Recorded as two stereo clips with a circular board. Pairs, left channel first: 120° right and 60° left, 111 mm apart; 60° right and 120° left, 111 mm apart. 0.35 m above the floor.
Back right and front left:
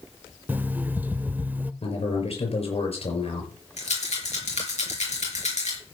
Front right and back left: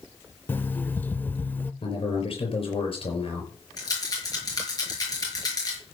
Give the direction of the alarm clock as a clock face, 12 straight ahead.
12 o'clock.